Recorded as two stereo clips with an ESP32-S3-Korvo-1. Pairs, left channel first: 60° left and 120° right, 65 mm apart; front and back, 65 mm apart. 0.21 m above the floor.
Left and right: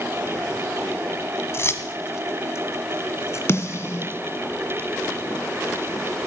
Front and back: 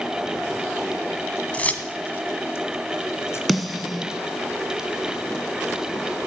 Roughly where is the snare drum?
Left.